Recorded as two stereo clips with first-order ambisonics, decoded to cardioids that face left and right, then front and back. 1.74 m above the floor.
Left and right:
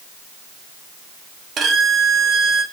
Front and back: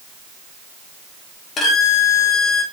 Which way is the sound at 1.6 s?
45° right.